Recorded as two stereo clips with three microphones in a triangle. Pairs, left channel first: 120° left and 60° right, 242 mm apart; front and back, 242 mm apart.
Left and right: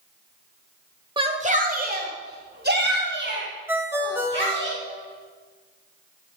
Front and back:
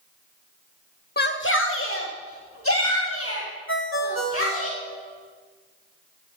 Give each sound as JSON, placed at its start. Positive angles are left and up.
{"t": 1.2, "sound": "a shout", "azimuth_deg": 0, "distance_m": 1.0}
{"t": 3.7, "sound": "a ringtone", "azimuth_deg": 20, "distance_m": 1.8}